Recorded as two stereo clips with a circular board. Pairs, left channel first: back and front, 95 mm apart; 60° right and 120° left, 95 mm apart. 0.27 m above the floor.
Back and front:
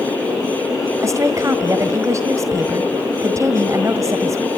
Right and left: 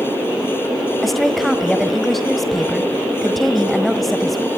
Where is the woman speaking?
25° left, 1.5 m.